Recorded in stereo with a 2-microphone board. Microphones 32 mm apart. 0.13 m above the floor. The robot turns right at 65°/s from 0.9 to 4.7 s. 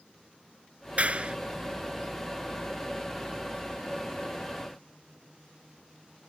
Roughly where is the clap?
Right.